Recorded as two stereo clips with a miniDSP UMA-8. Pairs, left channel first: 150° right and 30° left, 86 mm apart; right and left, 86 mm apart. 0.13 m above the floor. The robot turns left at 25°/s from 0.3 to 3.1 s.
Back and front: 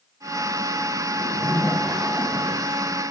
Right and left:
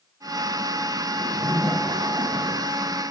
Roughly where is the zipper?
Behind left.